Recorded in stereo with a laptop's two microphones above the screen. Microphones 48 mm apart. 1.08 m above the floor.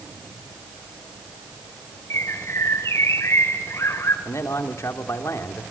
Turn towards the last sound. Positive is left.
turn(degrees=80)